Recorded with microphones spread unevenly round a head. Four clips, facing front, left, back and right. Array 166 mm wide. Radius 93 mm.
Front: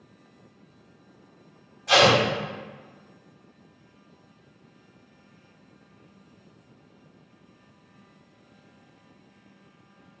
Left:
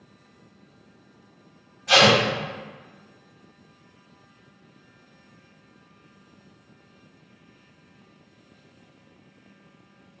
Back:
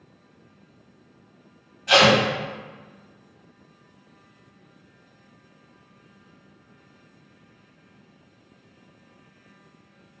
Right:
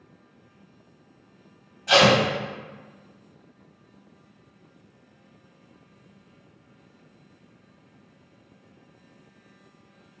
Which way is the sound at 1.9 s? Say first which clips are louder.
Even, back 1 dB; 70° right.